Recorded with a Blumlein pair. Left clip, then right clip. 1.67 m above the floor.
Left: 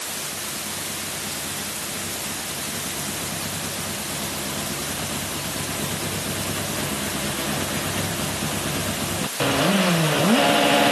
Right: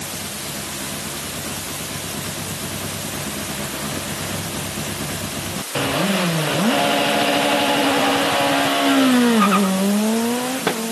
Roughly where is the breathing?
I don't hear breathing.